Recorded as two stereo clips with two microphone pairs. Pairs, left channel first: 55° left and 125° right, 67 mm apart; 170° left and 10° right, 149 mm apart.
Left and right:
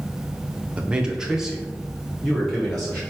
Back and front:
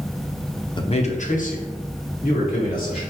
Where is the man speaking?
175° right, 0.5 m; by 3.0 s 150° left, 2.5 m.